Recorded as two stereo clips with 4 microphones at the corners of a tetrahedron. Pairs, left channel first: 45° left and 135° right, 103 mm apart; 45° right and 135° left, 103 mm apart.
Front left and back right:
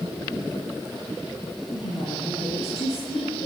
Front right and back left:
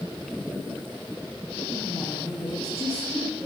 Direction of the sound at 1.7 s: 35° left.